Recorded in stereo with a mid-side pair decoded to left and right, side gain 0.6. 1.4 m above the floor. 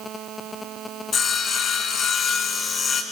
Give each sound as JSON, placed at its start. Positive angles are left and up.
{"t": 1.1, "sound": "sawing", "azimuth_deg": 40, "distance_m": 4.0}